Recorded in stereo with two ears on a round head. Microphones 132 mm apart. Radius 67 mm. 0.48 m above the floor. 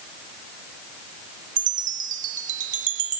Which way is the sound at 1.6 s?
55° right (ahead or behind).